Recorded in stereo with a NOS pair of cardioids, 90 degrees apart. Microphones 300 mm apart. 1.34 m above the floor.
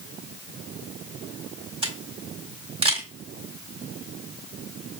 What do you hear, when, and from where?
1.8 s a camera shutter: 15° right, 1.7 m